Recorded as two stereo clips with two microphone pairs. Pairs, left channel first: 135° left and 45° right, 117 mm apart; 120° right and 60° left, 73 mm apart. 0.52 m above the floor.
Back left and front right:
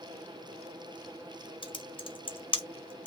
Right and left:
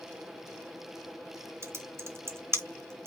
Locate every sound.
1.6 s typing on a keyboard: 105° left, 1.0 m